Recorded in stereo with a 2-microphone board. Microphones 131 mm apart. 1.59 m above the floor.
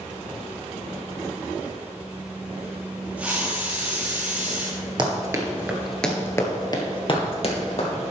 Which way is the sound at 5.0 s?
35° right (ahead or behind).